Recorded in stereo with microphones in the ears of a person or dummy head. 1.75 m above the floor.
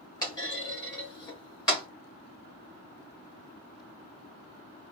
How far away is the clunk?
About 1.5 m.